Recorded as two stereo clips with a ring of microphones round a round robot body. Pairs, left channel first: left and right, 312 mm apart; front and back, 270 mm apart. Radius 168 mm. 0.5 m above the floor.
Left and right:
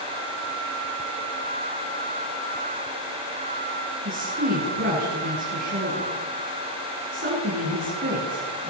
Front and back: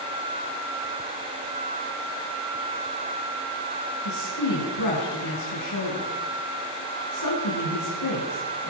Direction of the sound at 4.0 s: 30° right.